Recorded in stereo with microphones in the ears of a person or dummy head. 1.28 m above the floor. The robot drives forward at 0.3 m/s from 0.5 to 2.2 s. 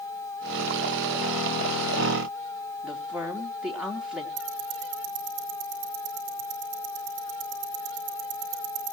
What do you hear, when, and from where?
2.8 s a woman speaking: 5° right (ahead or behind), 3 m
4.4 s ticking: 55° right (ahead or behind), 6.5 m